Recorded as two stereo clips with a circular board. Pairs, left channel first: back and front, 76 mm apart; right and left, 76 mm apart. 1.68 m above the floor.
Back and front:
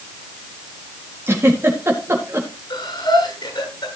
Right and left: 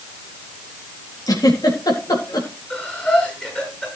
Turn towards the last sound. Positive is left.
turn(degrees=-160)